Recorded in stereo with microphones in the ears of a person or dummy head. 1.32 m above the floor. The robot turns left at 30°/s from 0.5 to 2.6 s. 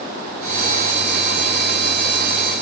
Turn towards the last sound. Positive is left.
No sound to turn to.